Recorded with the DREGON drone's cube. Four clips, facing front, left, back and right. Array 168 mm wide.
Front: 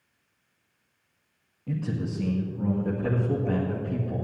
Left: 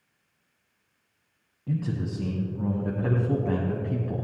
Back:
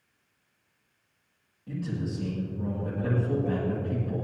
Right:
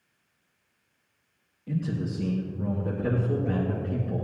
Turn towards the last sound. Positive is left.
turn(degrees=95)